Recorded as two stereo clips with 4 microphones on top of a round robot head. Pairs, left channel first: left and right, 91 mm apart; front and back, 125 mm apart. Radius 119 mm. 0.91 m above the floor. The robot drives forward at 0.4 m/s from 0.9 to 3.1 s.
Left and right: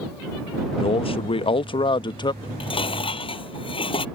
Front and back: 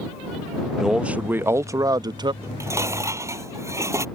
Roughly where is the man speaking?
Left.